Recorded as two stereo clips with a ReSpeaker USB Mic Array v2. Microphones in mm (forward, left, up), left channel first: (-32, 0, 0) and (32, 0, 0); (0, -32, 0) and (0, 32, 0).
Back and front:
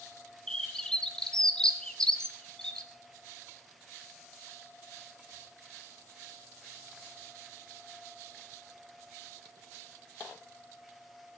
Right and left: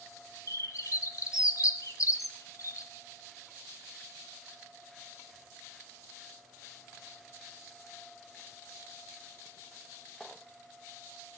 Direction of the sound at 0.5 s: 105° right.